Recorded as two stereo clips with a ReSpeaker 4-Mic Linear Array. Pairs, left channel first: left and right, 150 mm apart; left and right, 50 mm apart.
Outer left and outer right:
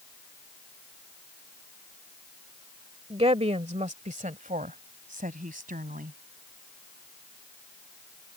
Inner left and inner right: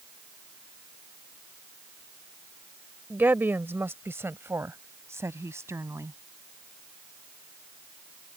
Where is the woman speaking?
40° right (ahead or behind); by 6.2 s 75° right (ahead or behind).